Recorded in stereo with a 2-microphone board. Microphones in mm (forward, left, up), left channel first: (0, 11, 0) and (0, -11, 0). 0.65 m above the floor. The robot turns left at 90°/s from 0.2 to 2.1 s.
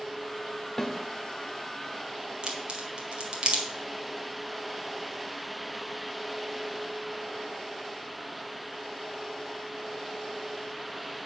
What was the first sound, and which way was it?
A snare drum, 25° left (ahead or behind).